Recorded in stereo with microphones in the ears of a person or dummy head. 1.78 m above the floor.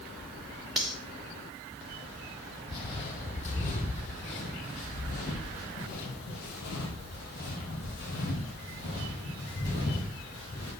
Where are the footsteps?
30° left (ahead or behind), 3 m.